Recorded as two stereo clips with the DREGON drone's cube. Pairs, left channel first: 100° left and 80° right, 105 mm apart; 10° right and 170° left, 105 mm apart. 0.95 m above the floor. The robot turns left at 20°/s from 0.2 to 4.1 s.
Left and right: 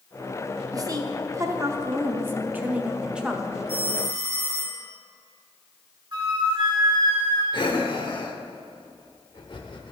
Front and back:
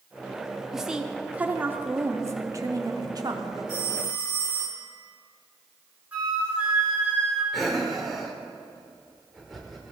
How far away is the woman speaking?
About 0.6 m.